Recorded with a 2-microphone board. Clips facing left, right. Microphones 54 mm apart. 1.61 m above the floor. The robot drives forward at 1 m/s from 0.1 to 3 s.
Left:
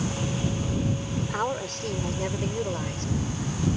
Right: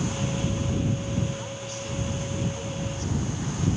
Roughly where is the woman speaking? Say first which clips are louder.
Left 5 dB; left.